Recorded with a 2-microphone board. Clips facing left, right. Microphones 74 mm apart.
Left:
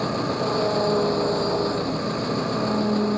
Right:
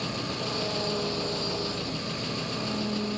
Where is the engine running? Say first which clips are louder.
Left 9 dB; 35° left (ahead or behind).